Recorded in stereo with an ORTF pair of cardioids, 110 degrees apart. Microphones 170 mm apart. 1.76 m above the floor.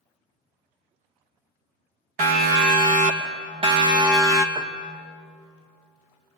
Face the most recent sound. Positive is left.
turn(degrees=-25)